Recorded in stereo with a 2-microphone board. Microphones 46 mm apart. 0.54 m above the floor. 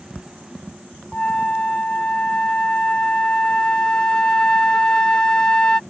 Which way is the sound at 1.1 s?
15° left (ahead or behind).